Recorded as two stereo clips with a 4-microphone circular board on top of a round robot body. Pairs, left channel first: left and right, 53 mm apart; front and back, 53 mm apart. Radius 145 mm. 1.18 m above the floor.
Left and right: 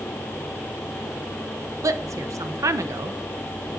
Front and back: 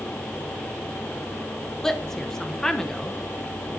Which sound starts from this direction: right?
A woman speaking, at 1.8 s.